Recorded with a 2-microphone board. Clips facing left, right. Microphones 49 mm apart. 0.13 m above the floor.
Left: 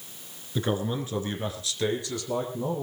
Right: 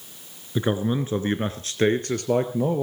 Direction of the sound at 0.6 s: 20° right (ahead or behind).